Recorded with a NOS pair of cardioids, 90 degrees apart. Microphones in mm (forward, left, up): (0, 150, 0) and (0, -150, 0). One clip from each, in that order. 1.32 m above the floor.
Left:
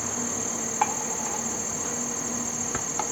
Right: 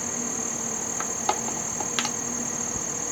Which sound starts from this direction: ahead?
An insect, at 0.0 s.